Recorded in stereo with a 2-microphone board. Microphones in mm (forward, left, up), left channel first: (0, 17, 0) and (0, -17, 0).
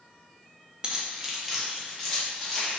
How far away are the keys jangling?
About 0.5 m.